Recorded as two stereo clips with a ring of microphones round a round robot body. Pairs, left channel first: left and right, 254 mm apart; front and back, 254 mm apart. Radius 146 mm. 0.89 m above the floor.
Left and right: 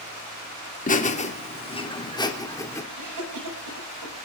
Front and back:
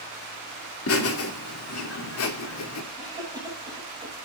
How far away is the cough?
About 7 m.